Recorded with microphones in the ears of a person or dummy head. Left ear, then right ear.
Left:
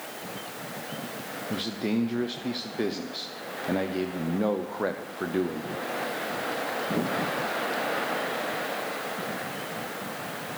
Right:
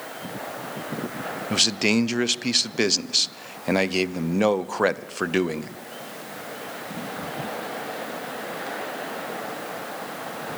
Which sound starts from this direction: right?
A man speaking, at 1.5 s.